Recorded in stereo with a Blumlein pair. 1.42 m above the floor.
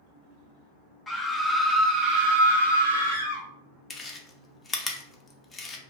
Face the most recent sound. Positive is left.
turn(degrees=15)